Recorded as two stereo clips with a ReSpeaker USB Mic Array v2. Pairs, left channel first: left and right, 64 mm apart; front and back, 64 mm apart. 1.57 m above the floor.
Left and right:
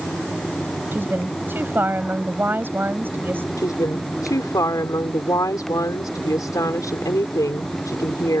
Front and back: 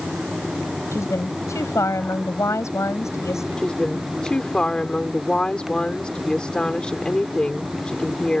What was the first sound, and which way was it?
A woman speaking, 35° right.